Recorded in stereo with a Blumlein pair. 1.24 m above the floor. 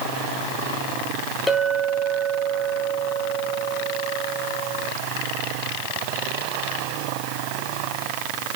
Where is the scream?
I don't hear a scream.